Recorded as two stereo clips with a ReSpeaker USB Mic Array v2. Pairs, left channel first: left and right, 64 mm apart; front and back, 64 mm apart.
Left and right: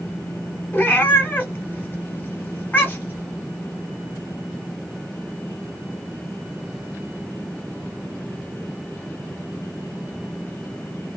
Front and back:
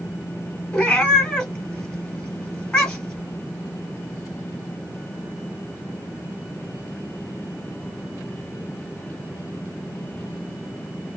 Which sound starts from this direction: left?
A cat meowing, at 0.7 s.